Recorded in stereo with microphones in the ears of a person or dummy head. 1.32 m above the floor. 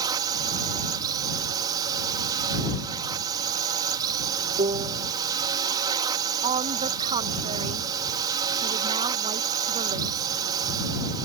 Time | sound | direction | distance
0.0 | a drone | 25° right (ahead or behind) | ?
4.6 | a piano | 25° right (ahead or behind) | ?
6.4 | a woman speaking | 30° right (ahead or behind) | ?